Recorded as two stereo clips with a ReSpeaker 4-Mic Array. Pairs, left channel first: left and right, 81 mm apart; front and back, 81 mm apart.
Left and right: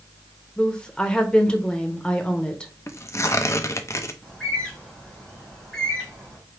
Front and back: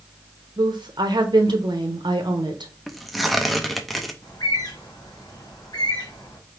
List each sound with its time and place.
0.6 s a woman speaking: 165° left, 0.8 m
2.9 s tearing paper: 90° left, 0.5 m
4.2 s a bird: 5° left, 3 m